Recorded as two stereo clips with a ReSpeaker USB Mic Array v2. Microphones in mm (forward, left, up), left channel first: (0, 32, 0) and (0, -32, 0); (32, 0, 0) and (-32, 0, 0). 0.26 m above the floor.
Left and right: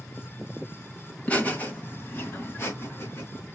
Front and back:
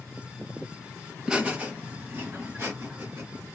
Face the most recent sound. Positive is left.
turn(degrees=135)